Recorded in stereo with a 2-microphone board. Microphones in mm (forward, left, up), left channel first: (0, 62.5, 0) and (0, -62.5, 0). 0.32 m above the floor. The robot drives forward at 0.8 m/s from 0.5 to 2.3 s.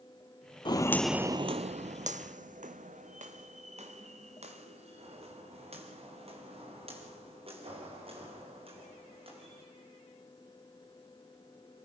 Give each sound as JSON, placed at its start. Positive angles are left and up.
{"t": 0.7, "sound": "footsteps", "side_deg": 35, "distance_m": 0.6}